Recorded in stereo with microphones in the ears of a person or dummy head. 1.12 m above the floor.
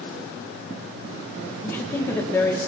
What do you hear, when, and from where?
1.6 s a woman speaking: 10° left (ahead or behind), 1.2 m